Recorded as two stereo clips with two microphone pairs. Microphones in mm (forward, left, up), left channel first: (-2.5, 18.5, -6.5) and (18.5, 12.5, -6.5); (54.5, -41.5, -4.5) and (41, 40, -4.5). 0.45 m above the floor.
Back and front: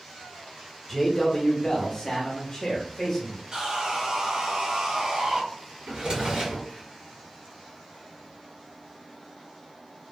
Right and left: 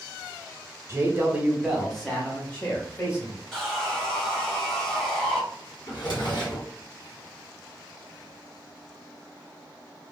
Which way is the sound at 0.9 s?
90° left.